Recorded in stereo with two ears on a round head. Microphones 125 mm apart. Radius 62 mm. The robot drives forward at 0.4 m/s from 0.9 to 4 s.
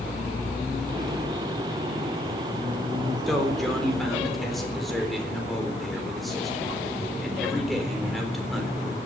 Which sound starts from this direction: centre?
A man speaking, at 3.3 s.